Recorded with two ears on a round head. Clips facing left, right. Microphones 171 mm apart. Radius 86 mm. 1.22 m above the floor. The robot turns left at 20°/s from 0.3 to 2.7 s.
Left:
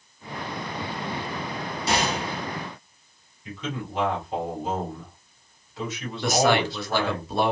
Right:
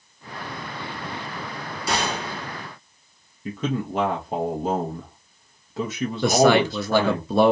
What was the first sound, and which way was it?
A gunshot, 25° left (ahead or behind).